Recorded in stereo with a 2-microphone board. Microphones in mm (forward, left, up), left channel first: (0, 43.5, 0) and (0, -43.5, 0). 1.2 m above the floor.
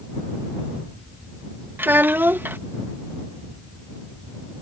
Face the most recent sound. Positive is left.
turn(degrees=-20)  # may be behind; listen again after turning